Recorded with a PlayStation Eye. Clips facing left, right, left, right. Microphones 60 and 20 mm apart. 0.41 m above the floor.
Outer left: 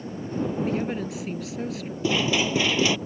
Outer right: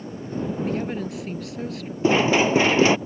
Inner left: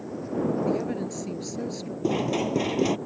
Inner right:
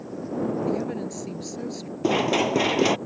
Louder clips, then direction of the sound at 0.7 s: Even, even; centre (ahead or behind).